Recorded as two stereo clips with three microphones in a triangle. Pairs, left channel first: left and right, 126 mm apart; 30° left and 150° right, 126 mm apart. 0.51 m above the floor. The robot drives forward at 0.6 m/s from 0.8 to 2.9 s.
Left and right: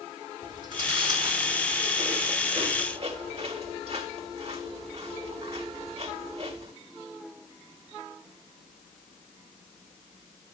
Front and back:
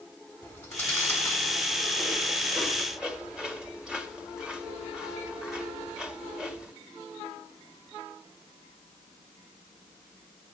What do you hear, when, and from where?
0.4 s chewing: 40° right, 3 m; by 6.7 s 65° right, 2 m